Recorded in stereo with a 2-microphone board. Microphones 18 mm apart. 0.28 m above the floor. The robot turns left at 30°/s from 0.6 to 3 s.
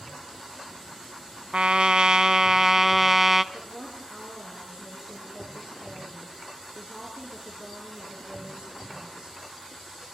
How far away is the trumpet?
About 0.5 m.